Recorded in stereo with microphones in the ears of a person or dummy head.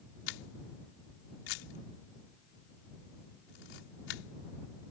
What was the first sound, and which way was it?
A camera shutter, 75° left (ahead or behind).